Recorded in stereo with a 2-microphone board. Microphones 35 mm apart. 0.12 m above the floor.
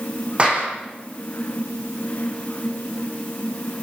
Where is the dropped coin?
No dropped coin in this recording.